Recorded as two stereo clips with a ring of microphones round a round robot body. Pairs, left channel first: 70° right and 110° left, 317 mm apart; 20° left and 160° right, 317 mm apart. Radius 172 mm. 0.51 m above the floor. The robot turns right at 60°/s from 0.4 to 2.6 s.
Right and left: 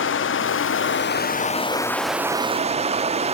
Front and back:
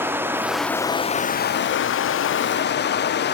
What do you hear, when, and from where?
0.0 s running water: 80° right, 0.7 m; by 3.4 s 55° left, 0.7 m